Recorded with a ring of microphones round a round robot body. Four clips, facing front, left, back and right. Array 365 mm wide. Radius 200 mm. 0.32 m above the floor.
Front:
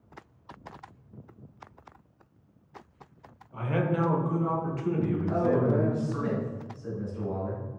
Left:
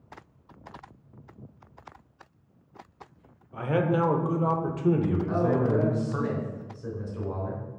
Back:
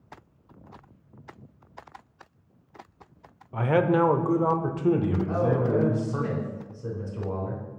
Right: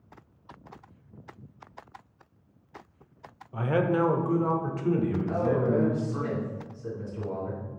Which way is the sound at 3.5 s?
170° right.